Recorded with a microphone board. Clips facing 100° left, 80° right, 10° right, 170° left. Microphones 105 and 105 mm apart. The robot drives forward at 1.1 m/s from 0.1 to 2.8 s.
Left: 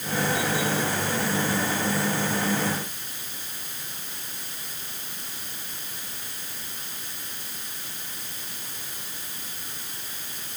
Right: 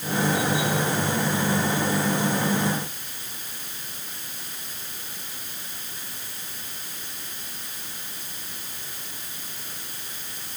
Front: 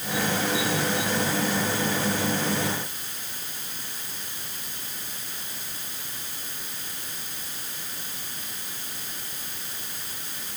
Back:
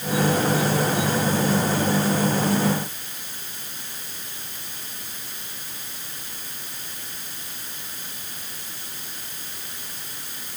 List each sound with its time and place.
Only background noise.